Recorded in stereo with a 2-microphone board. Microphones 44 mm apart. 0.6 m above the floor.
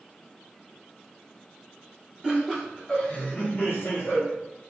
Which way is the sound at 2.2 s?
20° right (ahead or behind).